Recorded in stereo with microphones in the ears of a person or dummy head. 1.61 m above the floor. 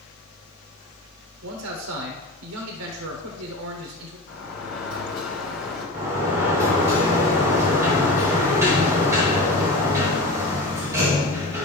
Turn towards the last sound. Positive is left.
turn(degrees=-15)  # may be behind; listen again after turning